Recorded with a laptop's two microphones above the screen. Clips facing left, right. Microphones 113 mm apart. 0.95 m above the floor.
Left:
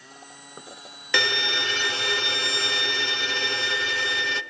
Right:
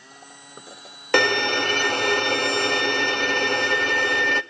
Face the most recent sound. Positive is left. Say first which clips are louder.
# right 7 dB
turn(degrees=-55)  # may be behind; listen again after turning